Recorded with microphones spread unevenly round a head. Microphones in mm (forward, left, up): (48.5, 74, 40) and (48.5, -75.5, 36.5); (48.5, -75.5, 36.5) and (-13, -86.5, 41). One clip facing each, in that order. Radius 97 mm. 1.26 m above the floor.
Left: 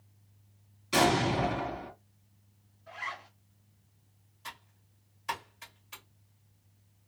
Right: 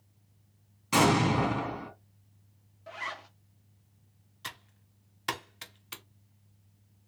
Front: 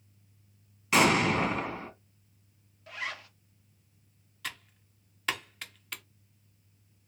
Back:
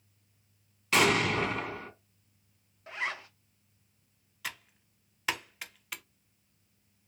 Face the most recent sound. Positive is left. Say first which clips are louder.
# right 1 dB, even
turn(degrees=-85)